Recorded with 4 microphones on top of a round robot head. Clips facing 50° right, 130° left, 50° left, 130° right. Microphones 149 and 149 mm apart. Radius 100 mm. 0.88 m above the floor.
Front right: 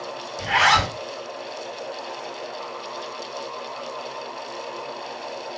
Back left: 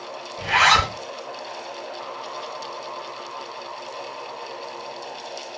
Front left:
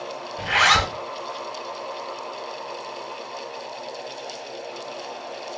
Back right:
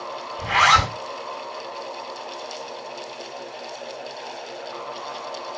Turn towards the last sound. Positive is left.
turn(degrees=70)